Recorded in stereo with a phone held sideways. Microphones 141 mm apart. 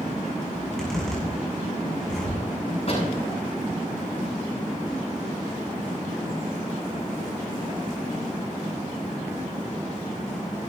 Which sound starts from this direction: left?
A door slam, at 2.9 s.